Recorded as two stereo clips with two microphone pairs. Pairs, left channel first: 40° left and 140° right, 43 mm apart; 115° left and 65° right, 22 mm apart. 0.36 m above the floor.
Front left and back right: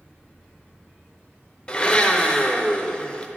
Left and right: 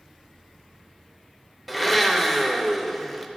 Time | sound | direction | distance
1.7 | a blender | 35° left | 0.6 m